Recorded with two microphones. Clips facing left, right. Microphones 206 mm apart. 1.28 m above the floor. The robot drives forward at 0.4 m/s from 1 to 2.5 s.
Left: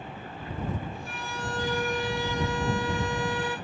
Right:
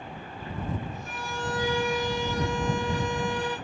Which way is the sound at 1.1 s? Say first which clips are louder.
Right 2 dB; 60° right (ahead or behind).